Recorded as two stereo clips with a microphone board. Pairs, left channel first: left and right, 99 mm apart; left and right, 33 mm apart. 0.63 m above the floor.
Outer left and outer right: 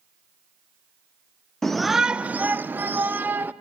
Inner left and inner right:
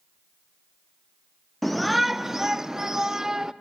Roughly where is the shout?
Centre.